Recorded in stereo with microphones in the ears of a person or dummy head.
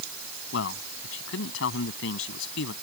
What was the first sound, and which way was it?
A man speaking, 80° left.